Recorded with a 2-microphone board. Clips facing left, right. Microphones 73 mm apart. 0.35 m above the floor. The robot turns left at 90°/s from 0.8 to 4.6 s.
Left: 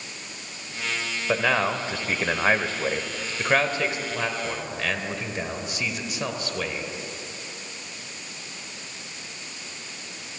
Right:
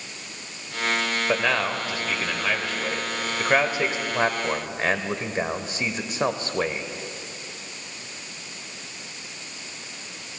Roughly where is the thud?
No thud in this recording.